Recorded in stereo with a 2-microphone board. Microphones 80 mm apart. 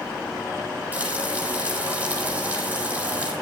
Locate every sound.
0.9 s frying: 20° right (ahead or behind), 9.5 m